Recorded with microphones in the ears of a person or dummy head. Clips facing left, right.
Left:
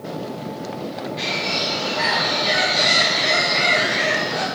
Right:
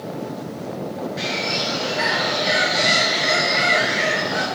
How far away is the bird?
About 1.9 m.